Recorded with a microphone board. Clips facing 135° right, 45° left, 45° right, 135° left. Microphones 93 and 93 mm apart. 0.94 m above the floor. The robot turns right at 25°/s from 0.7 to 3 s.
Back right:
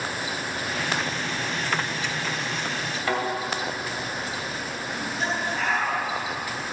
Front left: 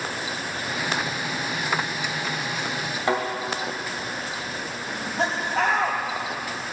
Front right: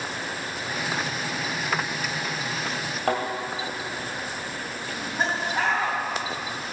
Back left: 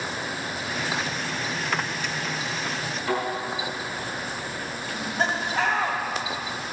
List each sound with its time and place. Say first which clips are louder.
3.1 s a thud: front left 3 dB, front right 2 dB; 20° right, 2.5 m
4.9 s laughter: front left 3 dB, back left 1 dB; 30° left, 2.5 m